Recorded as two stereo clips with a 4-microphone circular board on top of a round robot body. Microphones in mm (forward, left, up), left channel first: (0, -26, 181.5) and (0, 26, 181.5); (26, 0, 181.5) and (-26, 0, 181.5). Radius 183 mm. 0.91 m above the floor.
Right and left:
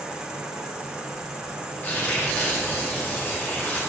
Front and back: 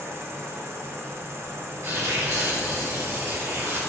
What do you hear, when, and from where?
0.0 s an insect: 165° left, 2.5 m
1.8 s tearing paper: 145° right, 4.5 m